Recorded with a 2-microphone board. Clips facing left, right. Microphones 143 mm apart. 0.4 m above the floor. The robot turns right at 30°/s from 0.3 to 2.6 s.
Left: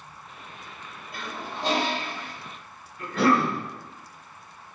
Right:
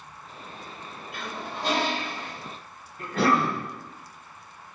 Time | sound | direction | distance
1.1 | a toilet flushing | 135° left | 0.5 m
3.0 | a cough | 45° right (ahead or behind) | 1.7 m